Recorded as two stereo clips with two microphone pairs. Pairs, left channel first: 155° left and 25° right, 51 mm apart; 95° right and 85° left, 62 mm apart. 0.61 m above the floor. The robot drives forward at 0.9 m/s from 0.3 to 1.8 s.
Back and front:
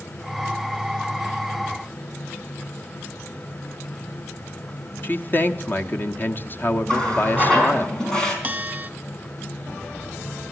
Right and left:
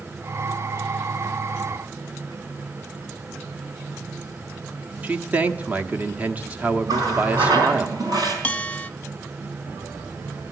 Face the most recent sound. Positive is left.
turn(degrees=-35)